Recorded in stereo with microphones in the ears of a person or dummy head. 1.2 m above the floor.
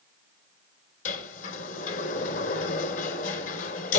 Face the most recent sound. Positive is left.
turn(degrees=40)  # may be behind; listen again after turning